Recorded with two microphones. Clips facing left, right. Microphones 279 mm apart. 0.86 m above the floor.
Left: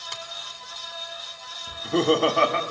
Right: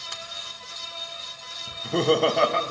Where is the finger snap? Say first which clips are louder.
Left 2 dB; 5° right (ahead or behind), 2.5 m.